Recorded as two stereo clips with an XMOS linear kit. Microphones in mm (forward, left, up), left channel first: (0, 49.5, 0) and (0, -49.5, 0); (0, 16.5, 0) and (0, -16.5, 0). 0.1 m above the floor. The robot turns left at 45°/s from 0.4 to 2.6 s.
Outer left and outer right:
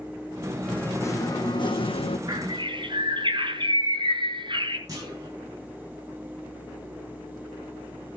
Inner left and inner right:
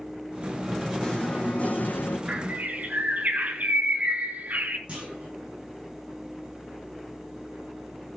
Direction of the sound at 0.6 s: 170° left.